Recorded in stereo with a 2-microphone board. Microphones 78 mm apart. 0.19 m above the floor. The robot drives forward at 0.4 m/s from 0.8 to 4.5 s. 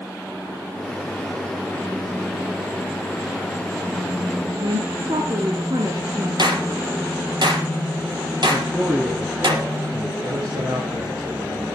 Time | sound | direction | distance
4.6 | a woman speaking | 60° right (ahead or behind) | 3 m
6.4 | a clap | 70° right (ahead or behind) | 5 m
8.5 | a man speaking | 15° right (ahead or behind) | 3 m
10.2 | a man speaking | 60° right (ahead or behind) | 7 m